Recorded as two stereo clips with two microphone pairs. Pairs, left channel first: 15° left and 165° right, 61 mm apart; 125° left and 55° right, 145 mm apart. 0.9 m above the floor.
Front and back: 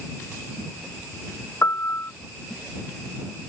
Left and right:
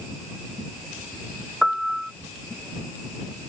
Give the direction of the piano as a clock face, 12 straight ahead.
11 o'clock.